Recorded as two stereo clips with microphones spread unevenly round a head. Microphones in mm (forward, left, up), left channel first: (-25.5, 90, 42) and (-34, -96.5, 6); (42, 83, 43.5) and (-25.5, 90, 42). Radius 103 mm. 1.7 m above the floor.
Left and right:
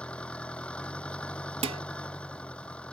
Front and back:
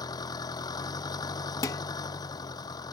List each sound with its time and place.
0.0 s an engine running: 5° left
1.6 s dishes clattering: 30° right